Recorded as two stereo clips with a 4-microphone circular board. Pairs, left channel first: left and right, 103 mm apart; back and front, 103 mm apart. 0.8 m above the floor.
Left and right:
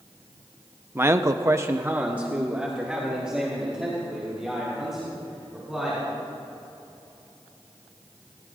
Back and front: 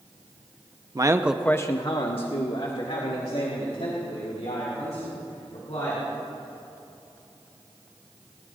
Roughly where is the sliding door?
No sliding door in this recording.